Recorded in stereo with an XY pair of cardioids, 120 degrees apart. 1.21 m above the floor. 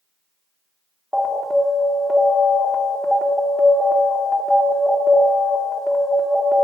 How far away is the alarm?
About 1.1 m.